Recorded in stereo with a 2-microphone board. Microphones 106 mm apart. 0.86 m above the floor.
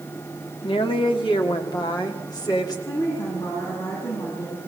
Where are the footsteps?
I don't hear footsteps.